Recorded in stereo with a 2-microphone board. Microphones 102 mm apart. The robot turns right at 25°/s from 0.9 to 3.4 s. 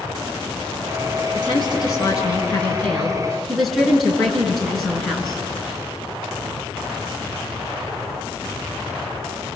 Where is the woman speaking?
130° left, 7.5 m; by 5.4 s straight behind, 7.5 m.